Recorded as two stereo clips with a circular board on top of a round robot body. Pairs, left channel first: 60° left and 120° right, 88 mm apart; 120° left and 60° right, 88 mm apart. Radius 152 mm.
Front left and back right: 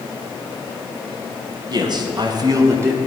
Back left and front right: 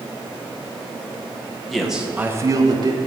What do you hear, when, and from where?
1.7 s a man speaking: 155° right, 1.4 m; by 3.0 s 55° right, 1.3 m